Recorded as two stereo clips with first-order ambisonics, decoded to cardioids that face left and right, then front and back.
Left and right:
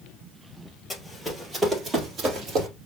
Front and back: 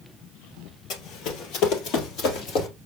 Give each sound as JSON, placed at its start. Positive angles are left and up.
{"t": 0.9, "sound": "running footsteps", "azimuth_deg": 10, "distance_m": 1.9}